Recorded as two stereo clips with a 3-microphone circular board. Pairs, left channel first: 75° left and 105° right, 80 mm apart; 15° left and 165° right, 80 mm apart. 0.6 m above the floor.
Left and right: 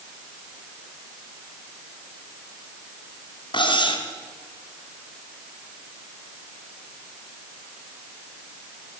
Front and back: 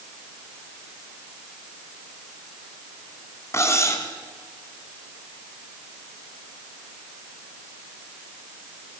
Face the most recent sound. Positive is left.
turn(degrees=70)